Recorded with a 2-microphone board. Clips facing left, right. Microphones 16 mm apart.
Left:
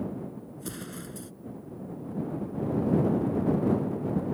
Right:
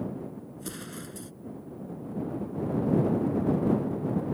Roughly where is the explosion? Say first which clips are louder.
Left 1 dB; centre.